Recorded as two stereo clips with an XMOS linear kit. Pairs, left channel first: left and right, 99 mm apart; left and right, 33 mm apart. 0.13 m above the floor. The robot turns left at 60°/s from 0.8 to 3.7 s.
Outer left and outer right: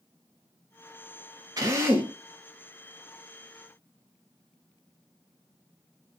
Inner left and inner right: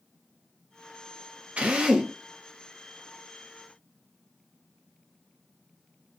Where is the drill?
130° right, 0.9 m; by 2.1 s 165° right, 0.9 m.